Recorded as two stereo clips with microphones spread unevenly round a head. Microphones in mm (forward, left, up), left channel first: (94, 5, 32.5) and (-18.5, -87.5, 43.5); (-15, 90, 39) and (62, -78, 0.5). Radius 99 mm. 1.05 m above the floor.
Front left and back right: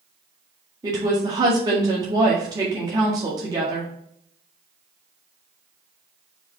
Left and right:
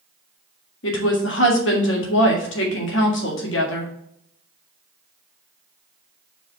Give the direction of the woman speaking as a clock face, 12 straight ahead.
7 o'clock.